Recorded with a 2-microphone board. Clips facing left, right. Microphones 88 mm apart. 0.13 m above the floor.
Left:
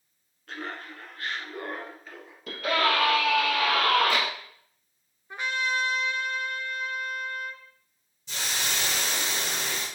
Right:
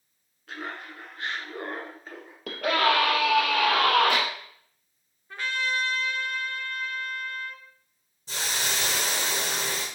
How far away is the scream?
About 3 m.